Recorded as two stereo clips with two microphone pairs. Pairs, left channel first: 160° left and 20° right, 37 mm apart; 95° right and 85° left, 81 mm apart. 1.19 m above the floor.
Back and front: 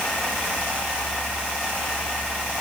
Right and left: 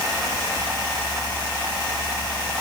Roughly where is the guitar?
I don't hear a guitar.